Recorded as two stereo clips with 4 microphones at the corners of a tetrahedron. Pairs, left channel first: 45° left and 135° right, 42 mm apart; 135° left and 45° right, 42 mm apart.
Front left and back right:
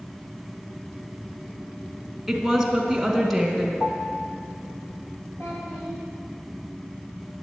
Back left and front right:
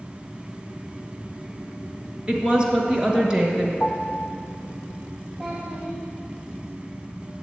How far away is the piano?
About 0.6 m.